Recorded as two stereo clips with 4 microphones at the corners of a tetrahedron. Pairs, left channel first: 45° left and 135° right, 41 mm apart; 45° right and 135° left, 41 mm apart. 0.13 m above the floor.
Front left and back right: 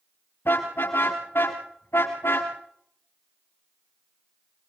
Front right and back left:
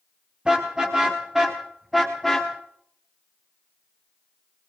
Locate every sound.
0.5 s a car horn: 65° left, 6 m; by 2.5 s 40° left, 5 m